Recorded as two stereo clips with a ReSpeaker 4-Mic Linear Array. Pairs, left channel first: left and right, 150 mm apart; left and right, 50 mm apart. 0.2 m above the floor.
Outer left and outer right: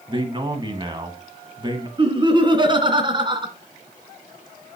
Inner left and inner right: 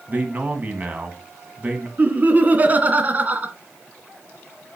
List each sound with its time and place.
0.1 s a man speaking: 30° right (ahead or behind), 1.8 m
2.0 s laughter: 30° right (ahead or behind), 1.9 m